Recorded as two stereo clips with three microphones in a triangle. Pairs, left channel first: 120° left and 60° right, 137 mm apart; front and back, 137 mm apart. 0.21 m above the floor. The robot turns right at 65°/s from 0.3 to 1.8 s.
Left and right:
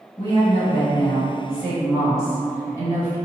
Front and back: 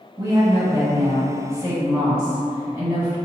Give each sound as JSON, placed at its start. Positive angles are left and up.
{"t": 0.2, "sound": "a woman speaking", "azimuth_deg": 150, "distance_m": 2.0}